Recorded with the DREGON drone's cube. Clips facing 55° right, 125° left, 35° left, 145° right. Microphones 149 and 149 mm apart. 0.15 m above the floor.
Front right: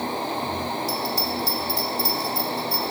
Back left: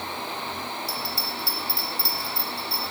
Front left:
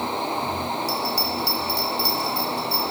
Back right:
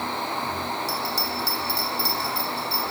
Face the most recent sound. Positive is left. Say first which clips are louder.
# front right 7 dB, front left 3 dB
turn(degrees=-40)